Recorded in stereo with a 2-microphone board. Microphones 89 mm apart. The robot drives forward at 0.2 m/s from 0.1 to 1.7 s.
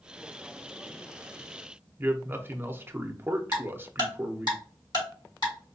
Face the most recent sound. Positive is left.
turn(degrees=55)  # may be behind; listen again after turning